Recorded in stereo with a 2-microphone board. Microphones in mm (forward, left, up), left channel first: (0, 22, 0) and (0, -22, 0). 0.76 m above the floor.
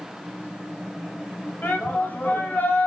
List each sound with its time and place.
1.6 s a shout: 45° left (ahead or behind), 4.5 m